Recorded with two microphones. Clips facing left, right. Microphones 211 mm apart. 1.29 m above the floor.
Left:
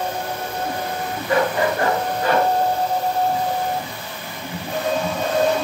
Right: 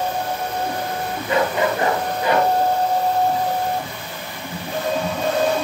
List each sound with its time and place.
1.3 s a dog barking: 25° right (ahead or behind), 9 m; by 2.5 s 15° right (ahead or behind), 8 m